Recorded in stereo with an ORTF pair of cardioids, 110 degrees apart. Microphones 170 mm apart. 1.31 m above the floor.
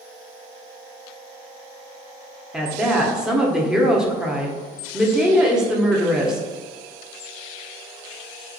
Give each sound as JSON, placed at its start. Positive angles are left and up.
{"t": 2.5, "sound": "a woman speaking", "azimuth_deg": -5, "distance_m": 0.6}